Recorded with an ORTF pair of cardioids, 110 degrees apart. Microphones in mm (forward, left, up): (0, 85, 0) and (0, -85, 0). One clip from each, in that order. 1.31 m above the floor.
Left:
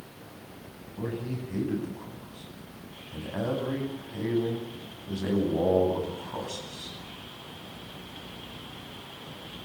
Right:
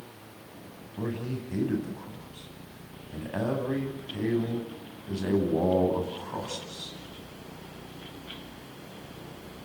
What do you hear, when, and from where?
1.0 s a man speaking: 15° right, 9.5 m